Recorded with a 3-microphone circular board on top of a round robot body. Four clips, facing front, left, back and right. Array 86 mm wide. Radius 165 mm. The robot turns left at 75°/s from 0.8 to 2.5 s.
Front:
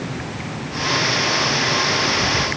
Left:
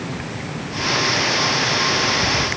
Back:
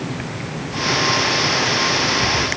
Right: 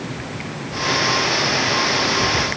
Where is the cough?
No cough in this recording.